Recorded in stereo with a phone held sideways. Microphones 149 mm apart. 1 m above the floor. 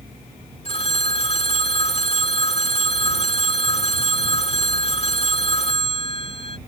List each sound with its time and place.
0.7 s a phone ringing: 40° left (ahead or behind)